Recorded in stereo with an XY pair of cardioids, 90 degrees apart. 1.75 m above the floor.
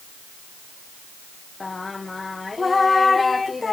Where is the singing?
30° left.